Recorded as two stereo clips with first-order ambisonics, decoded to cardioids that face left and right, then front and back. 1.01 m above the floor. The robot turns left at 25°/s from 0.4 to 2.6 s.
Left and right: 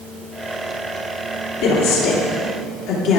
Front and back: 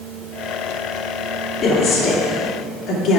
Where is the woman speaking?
80° left, 2.5 m; by 3.2 s 55° left, 2.5 m.